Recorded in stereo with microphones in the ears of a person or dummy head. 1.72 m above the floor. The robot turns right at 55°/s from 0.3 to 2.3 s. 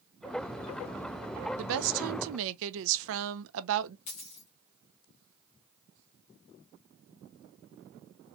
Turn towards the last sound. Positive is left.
turn(degrees=30)  # may be behind; listen again after turning